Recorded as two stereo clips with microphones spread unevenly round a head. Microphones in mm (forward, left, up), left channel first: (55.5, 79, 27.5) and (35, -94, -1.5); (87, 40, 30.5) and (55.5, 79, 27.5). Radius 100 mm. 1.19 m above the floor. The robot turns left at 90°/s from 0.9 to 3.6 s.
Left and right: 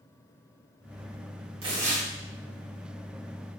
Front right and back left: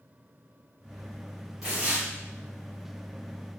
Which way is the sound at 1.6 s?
145° right.